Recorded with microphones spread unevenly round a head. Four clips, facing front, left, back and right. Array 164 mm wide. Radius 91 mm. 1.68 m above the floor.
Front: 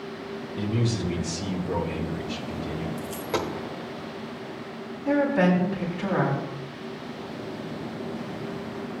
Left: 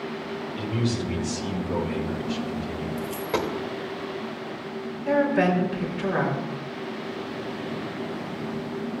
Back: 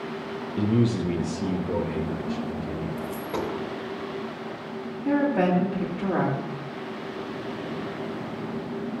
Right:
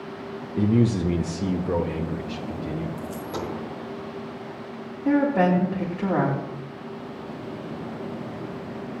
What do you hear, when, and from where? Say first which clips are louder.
0.6 s a man speaking: right 8 dB, back 5 dB; 125° right, 0.5 m; by 2.9 s 95° right, 1.6 m
3.0 s a dropped coin: left 4 dB, even; 50° left, 1.2 m
5.0 s a woman speaking: right 1 dB, front 1 dB; 115° right, 3 m